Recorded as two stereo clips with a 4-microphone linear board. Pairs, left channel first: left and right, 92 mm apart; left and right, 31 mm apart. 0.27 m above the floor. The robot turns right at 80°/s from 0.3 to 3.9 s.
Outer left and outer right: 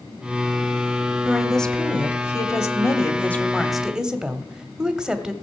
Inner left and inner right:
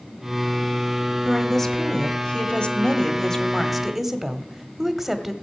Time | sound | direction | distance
1.2 | a woman speaking | 15° right | 1.0 m